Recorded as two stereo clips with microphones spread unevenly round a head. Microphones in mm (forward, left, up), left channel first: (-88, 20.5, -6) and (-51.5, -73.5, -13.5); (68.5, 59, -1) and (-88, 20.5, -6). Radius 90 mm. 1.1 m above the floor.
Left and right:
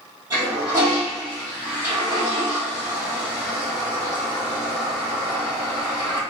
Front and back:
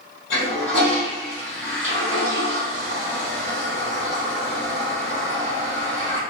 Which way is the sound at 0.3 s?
5° right.